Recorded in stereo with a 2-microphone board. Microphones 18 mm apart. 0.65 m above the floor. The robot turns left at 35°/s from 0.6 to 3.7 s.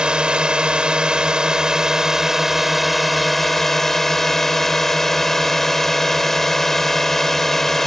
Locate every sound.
0.0 s a drone: 95° right; by 7.9 s 160° left